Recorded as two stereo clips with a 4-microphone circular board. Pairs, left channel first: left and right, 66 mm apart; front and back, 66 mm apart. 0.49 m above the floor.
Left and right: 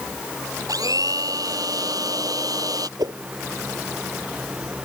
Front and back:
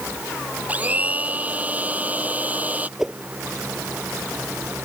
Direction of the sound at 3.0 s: 95° right.